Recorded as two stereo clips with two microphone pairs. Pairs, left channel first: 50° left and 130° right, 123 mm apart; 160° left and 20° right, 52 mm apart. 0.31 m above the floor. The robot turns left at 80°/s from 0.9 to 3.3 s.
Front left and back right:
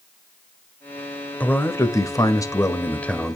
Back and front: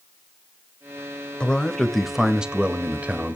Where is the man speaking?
115° left, 0.9 m; by 3.4 s 35° right, 0.9 m.